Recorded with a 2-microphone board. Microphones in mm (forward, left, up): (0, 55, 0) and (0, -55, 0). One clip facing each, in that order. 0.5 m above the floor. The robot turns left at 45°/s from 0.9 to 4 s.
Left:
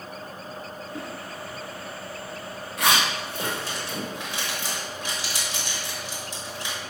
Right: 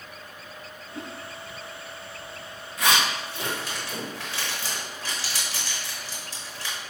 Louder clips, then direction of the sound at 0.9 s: Left 1 dB; 75° left (ahead or behind).